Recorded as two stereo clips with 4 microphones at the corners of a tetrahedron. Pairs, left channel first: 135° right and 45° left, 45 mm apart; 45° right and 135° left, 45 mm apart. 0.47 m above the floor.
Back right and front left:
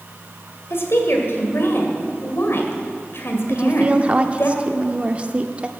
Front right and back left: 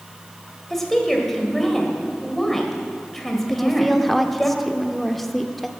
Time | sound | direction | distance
0.7 | a woman speaking | 125° right | 1.9 m
3.5 | a woman speaking | 35° left | 0.7 m